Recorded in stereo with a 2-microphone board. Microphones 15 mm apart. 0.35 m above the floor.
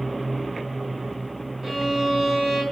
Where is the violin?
20° right (ahead or behind), 3.5 m.